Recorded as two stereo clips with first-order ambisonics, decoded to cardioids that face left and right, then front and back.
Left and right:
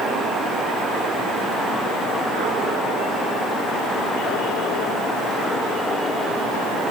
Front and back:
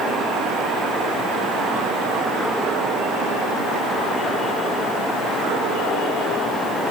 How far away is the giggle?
I don't hear a giggle.